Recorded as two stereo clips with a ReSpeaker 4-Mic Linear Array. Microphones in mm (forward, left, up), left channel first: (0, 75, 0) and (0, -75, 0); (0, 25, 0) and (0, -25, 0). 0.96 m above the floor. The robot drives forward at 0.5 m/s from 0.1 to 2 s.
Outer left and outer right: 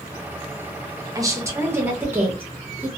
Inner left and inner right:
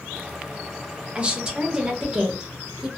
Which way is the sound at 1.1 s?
25° right (ahead or behind).